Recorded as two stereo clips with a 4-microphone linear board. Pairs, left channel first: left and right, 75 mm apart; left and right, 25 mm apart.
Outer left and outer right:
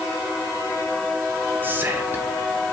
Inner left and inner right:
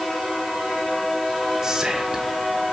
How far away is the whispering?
About 1.2 m.